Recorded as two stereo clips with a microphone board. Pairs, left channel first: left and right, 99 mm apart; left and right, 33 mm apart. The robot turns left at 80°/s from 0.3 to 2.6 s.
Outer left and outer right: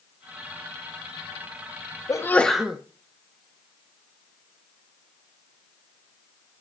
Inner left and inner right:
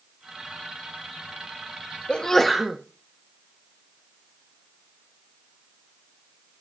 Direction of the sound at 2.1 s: 35° left.